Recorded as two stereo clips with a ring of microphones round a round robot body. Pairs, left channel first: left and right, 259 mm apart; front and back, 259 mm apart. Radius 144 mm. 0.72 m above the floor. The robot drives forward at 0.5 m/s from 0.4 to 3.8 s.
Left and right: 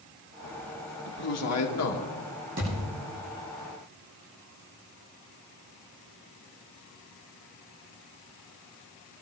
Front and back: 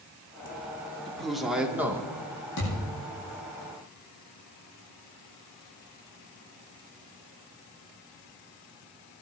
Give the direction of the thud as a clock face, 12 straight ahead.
1 o'clock.